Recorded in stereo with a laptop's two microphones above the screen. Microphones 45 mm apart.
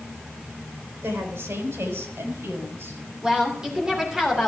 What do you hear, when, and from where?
1.0 s a woman speaking: 75° right (ahead or behind), 4 m; by 3.0 s 70° right (ahead or behind), 5 m
3.2 s a woman speaking: 15° right (ahead or behind), 3 m